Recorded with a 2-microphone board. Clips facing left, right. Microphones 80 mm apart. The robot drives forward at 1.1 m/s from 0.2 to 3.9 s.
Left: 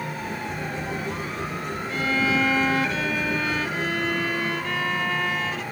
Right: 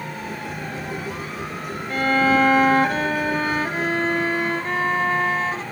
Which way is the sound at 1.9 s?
55° right (ahead or behind).